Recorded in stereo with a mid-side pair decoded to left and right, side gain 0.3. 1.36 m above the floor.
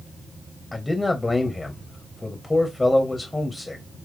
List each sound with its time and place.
0.7 s a man speaking: 25° left, 1.2 m